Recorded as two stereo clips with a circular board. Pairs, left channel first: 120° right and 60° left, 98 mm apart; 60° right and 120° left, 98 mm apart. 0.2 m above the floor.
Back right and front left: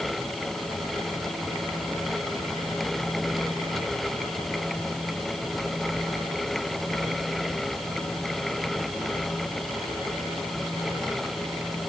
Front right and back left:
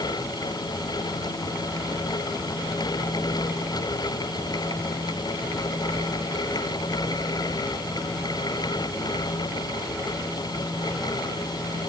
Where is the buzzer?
I don't hear a buzzer.